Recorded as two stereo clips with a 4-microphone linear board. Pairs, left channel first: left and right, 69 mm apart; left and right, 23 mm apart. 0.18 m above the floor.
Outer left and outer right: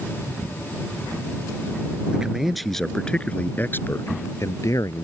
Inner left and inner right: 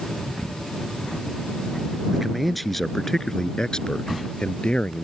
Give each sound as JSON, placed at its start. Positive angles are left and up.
{"t": 2.1, "sound": "a man speaking", "side_deg": -10}